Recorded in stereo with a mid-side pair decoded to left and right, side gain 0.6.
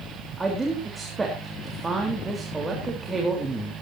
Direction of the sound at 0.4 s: 20° right.